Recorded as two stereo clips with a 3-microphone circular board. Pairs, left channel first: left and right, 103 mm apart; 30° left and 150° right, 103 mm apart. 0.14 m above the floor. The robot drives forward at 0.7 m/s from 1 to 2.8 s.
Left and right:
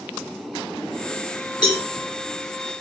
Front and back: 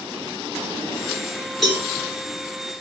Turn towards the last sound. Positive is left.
turn(degrees=135)